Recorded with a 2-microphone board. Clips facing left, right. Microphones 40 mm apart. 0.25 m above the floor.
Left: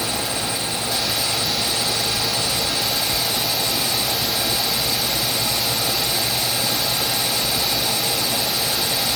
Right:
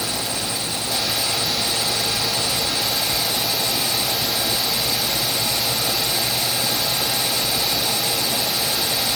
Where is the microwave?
I don't hear a microwave.